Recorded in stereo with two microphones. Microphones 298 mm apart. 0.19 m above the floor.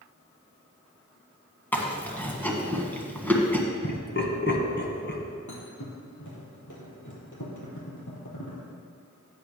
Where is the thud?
75° left (ahead or behind), 2.5 m.